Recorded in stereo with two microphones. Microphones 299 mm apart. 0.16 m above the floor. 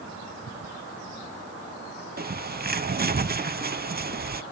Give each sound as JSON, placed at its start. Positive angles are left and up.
{"t": 2.2, "sound": "a bird", "side_deg": -35, "distance_m": 0.5}